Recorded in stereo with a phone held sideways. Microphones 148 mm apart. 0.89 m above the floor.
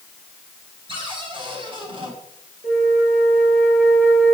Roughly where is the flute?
Right.